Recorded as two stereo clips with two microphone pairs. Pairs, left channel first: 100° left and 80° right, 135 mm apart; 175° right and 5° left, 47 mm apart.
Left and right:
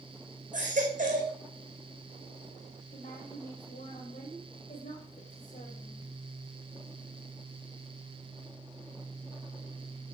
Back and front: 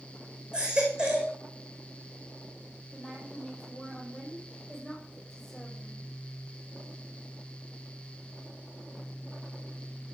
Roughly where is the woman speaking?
Left.